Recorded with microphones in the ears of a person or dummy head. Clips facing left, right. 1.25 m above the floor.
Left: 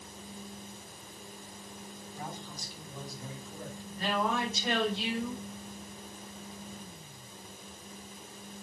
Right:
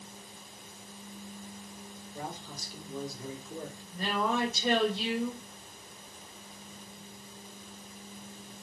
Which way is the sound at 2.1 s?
70° right (ahead or behind).